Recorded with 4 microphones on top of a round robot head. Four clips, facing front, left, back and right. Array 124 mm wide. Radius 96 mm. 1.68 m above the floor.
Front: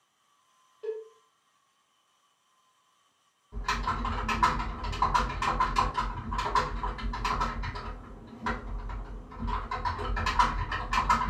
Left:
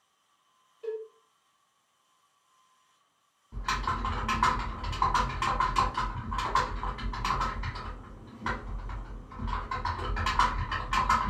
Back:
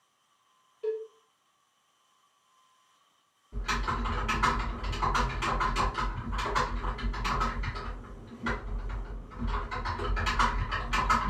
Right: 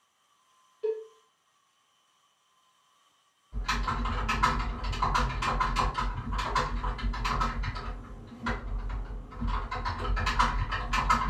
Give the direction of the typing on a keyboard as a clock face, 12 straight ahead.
10 o'clock.